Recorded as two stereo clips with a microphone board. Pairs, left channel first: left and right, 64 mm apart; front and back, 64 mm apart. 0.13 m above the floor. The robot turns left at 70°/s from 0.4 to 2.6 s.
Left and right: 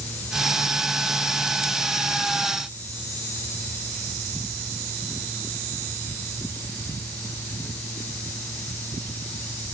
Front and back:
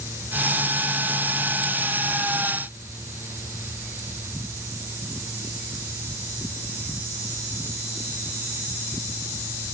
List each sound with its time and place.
Only background noise.